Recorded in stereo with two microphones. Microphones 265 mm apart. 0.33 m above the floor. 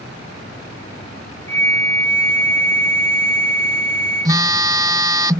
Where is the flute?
10° left (ahead or behind).